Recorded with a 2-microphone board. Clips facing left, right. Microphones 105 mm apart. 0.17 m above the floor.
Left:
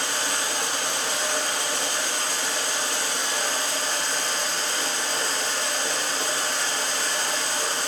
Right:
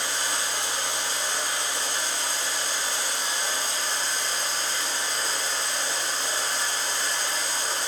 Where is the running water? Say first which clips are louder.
Left 2 dB; 65° left (ahead or behind), 2.5 m.